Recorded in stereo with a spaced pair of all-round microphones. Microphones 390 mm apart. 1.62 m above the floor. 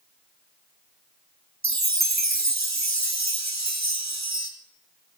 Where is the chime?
45° right (ahead or behind), 1.0 m.